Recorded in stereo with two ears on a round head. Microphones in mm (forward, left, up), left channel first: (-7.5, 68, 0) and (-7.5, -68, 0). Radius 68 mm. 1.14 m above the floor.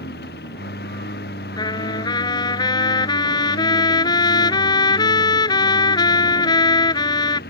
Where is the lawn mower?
75° left (ahead or behind); by 7.5 s 70° left (ahead or behind).